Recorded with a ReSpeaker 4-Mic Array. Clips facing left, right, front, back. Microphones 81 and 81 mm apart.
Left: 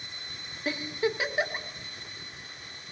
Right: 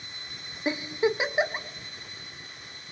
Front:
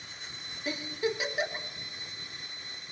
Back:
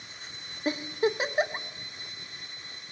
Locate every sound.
0.7 s a giggle: 150° right, 0.8 m